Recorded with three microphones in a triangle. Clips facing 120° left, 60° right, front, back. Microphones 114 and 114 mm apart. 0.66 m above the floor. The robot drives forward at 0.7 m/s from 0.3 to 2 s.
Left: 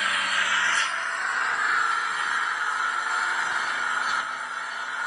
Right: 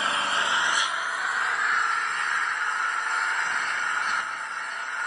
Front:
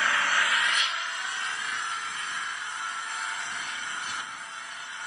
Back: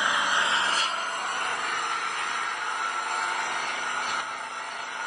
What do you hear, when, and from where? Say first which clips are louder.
0.0 s an engine running: right 1 dB, back 1 dB; 110° right, 1.0 m; by 5.1 s 155° right, 1.7 m